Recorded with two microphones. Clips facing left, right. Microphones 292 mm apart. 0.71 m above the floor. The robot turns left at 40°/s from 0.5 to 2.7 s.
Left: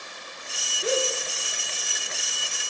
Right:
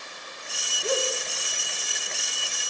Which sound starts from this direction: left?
A gasp, at 0.8 s.